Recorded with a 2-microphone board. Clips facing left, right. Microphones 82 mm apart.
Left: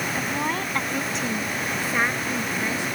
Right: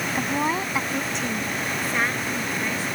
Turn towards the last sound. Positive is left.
turn(degrees=15)  # may be behind; listen again after turning